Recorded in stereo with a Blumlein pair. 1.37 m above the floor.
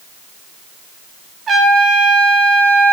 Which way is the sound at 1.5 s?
20° right.